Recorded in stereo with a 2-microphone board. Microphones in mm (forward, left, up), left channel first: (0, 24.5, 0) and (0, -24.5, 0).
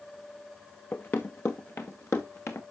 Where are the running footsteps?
50° left (ahead or behind), 1.0 m; by 2.6 s 65° left (ahead or behind), 1.9 m.